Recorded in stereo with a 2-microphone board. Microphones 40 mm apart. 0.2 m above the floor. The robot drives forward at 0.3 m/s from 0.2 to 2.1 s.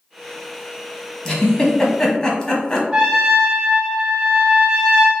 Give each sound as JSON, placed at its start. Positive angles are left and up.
{"t": 1.2, "sound": "a giggle", "side_deg": 15, "distance_m": 1.0}
{"t": 2.9, "sound": "a trumpet", "side_deg": -10, "distance_m": 1.7}